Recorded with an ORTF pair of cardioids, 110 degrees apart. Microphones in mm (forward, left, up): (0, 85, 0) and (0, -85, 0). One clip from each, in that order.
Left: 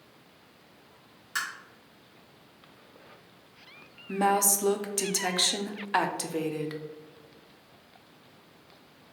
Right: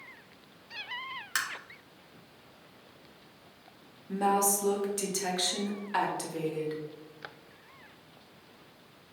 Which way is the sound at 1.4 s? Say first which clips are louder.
Even; 35° right.